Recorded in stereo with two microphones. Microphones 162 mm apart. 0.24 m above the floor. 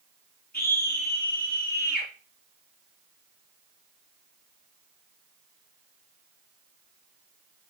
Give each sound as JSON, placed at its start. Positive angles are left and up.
{"t": 0.5, "sound": "a scream", "side_deg": 70, "distance_m": 5.0}